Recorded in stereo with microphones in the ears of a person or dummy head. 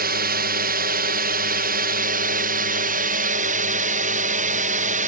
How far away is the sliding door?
I don't hear a sliding door.